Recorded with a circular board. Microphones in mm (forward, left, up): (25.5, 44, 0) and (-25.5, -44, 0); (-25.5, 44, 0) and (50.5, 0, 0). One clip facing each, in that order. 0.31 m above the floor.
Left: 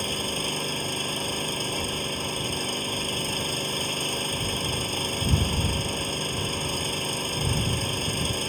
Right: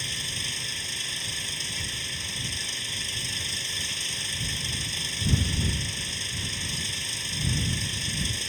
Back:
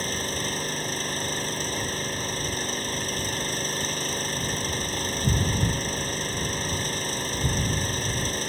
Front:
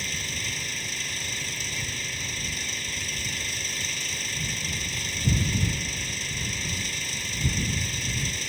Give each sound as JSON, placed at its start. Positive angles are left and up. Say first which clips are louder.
{"t": 0.0, "sound": "an engine running", "louder": "left 9 dB, back 6 dB", "azimuth_deg": 100}